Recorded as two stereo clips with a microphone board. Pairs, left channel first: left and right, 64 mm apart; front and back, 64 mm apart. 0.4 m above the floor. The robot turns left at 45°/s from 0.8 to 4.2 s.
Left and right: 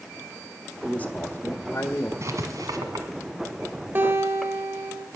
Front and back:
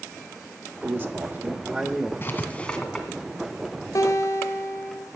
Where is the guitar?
35° right, 1.7 m; by 5.1 s 45° right, 1.7 m.